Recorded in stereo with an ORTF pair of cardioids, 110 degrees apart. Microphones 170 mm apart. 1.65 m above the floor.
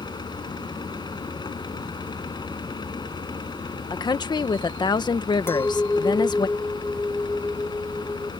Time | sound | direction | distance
0.0 | a fan | 25° left | ?
3.9 | a woman speaking | 25° left | ?
5.5 | a clink | 15° left | ?